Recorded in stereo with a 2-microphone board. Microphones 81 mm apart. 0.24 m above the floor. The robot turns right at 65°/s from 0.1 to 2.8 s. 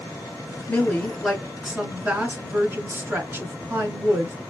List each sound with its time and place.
0.7 s a woman speaking: 20° left (ahead or behind), 1.5 m; by 4.3 s 25° right (ahead or behind), 1.5 m